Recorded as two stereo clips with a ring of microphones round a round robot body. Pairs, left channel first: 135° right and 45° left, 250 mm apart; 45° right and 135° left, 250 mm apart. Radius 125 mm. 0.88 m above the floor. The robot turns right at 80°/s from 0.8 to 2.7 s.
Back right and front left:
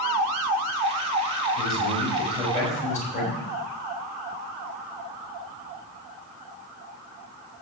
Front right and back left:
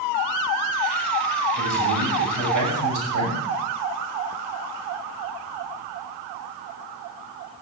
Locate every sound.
1.6 s a man speaking: 70° left, 5 m; by 3.4 s 160° left, 5 m